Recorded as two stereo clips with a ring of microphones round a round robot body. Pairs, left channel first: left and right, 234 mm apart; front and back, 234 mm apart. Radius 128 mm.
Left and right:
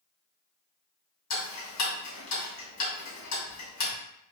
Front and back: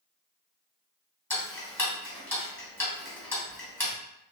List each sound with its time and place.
1.3 s ticking: 85° left, 2.5 m